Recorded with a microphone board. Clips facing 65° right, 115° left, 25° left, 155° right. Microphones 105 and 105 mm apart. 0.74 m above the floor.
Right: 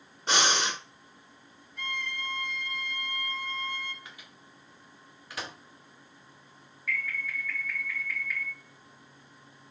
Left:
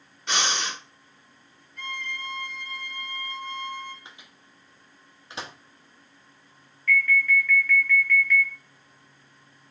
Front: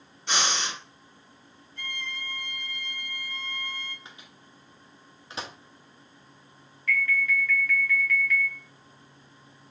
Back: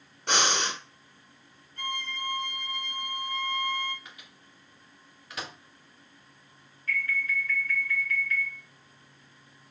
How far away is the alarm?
About 1.7 m.